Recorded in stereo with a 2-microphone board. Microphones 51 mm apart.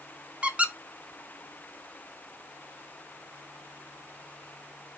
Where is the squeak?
25° right (ahead or behind), 0.6 m.